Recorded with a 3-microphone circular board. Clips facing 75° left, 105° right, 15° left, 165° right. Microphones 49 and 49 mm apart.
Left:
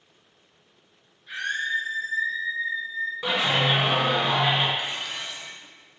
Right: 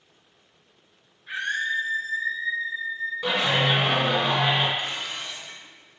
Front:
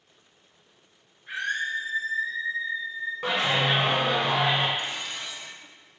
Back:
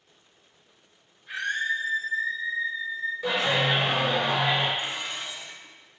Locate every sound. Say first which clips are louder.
1.3 s a scream: right 1 dB, back 1 dB; 50° right, 2.5 m; by 3.1 s 75° right, 2 m
3.2 s a clap: right 1 dB, front 1 dB; 5° right, 2.0 m
4.8 s dishes clattering: even, back 1 dB; 150° left, 0.9 m